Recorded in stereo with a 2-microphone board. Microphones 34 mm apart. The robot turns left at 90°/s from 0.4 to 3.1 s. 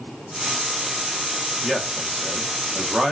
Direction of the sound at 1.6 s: 5° left (ahead or behind).